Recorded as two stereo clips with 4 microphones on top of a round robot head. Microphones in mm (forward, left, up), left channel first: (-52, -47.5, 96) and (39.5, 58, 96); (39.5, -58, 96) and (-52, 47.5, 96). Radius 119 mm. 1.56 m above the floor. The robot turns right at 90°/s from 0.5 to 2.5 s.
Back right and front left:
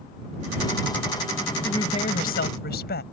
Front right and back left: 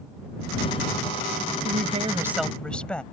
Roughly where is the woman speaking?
Behind left.